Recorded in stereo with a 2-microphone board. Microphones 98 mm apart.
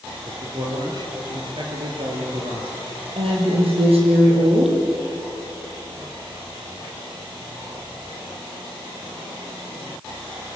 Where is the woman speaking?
80° right, 7.5 m.